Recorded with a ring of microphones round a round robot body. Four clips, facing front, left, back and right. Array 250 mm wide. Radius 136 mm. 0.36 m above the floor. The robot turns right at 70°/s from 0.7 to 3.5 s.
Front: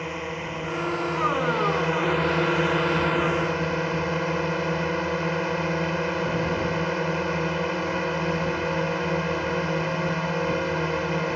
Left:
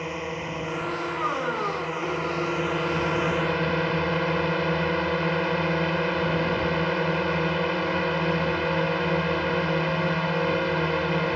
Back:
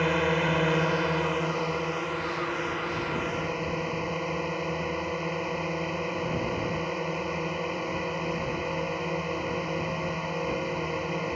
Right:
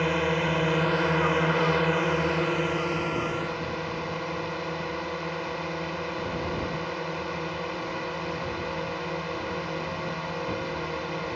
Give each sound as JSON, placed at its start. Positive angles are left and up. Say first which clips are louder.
{"t": 0.0, "sound": "a drone", "louder": "right 6 dB, back 6 dB", "azimuth_deg": -135}